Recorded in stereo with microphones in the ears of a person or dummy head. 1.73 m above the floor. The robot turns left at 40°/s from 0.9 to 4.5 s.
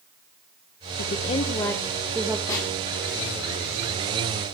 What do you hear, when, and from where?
1.0 s a woman speaking: 50° left, 1.5 m; by 2.4 s 5° right, 1.5 m
2.5 s a snare drum: 20° left (ahead or behind), 3.5 m; by 2.7 s 15° left (ahead or behind), 3.5 m